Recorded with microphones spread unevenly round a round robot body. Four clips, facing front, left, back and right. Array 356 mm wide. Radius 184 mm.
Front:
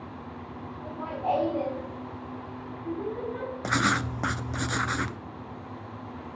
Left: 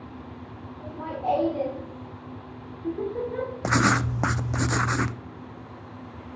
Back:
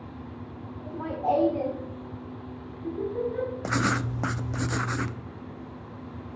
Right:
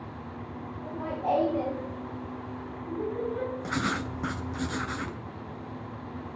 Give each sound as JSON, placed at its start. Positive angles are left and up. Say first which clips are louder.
{"t": 0.8, "sound": "laughter", "louder": "left 2 dB, back 2 dB", "azimuth_deg": -165, "distance_m": 2.5}
{"t": 3.6, "sound": "writing", "louder": "left 7 dB, front 3 dB", "azimuth_deg": 70, "distance_m": 0.6}